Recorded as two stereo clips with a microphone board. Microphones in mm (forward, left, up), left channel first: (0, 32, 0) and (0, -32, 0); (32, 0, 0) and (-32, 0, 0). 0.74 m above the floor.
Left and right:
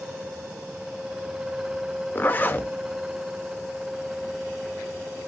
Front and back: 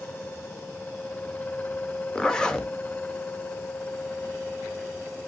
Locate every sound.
2.1 s a zipper: 65° left, 1.1 m